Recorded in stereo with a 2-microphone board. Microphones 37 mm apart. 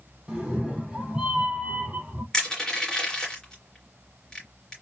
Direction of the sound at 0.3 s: 15° right (ahead or behind).